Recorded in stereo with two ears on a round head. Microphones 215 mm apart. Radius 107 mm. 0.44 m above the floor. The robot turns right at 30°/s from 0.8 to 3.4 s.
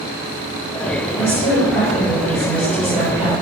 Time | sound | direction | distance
1.1 | a woman speaking | 25° left (ahead or behind) | 1.3 m